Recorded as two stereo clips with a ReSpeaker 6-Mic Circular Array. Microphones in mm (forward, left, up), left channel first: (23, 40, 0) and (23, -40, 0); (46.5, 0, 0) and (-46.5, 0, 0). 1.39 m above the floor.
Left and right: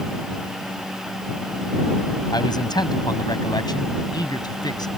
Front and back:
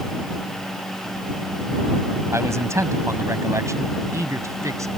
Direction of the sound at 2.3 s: 120° left.